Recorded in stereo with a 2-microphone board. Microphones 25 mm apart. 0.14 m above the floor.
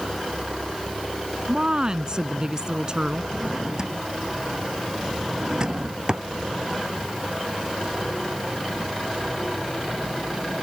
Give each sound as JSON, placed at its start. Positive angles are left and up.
{"t": 1.5, "sound": "a woman speaking", "side_deg": -30}
{"t": 3.3, "sound": "a drawer", "side_deg": -25}